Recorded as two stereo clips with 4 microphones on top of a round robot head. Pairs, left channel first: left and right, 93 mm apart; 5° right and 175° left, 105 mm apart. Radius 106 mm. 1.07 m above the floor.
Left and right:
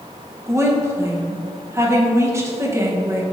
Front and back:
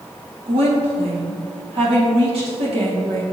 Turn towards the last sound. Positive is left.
turn(degrees=-150)